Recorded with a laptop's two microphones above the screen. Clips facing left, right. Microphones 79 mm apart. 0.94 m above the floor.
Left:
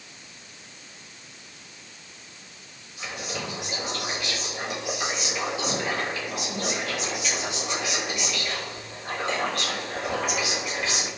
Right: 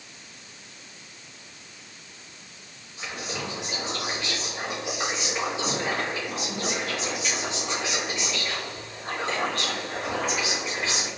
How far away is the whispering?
About 1.7 m.